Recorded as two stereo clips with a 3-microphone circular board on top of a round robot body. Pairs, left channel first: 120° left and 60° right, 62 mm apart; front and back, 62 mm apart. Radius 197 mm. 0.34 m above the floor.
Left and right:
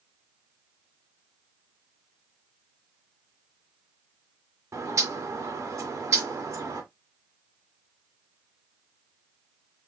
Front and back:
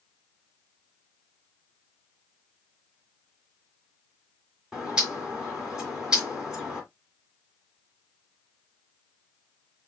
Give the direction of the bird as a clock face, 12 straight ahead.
3 o'clock.